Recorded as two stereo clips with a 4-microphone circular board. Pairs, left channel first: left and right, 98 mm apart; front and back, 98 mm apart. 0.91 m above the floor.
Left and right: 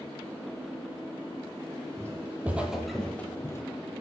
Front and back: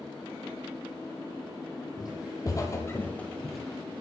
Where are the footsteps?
30° right, 1.4 m; by 3.6 s 90° left, 1.0 m.